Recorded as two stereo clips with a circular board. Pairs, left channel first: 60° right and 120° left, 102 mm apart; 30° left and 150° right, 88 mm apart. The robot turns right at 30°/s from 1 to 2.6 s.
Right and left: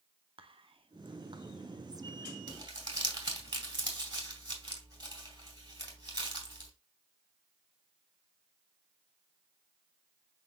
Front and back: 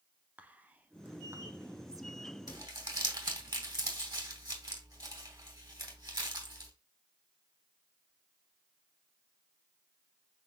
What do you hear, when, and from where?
0.4 s whispering: 140° left, 0.6 m; by 2.2 s 175° left, 0.6 m
2.5 s crumpling: 170° left, 1.9 m